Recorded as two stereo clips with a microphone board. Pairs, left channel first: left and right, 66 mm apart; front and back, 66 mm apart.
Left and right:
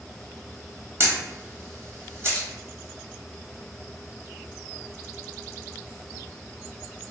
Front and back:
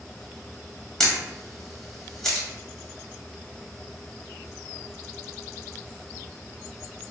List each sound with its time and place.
1.0 s a camera shutter: 80° right, 1.2 m